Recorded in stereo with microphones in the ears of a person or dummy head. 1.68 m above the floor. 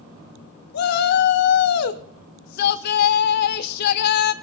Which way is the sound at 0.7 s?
60° left (ahead or behind).